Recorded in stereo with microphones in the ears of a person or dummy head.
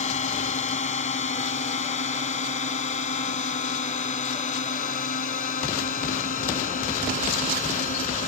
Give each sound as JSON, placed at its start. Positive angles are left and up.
{"t": 0.0, "sound": "a drone", "side_deg": 35}